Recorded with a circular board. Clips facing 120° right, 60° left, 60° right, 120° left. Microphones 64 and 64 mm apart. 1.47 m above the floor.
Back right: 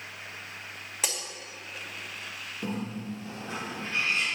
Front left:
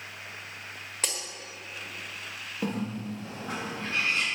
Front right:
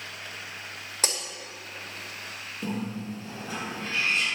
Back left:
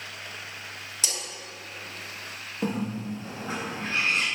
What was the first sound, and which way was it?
Breaking glass, 35° right.